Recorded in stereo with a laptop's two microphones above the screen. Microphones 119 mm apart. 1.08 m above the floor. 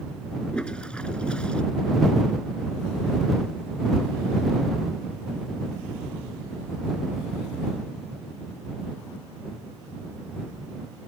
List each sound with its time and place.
0.5 s a toilet flushing: 10° left (ahead or behind)